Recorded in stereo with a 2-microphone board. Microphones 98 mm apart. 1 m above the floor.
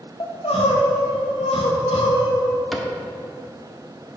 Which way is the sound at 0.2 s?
70° left (ahead or behind).